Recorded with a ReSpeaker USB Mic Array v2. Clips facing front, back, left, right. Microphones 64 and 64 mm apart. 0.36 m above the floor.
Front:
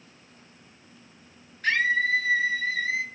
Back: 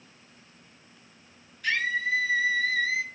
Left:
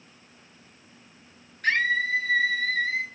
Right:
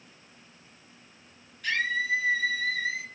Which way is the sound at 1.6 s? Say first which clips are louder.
Front 4 dB, left 4 dB; 45° left.